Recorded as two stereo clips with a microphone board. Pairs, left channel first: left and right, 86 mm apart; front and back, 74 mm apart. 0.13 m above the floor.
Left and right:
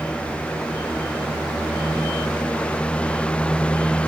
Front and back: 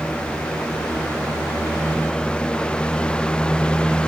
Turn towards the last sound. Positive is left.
No sound to turn to.